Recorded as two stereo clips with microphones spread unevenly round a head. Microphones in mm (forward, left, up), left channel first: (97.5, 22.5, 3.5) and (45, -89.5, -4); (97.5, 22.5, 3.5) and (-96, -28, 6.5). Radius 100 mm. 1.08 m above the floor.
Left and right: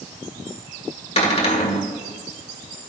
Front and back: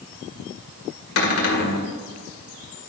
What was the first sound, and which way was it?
A cupboard door, 30° left.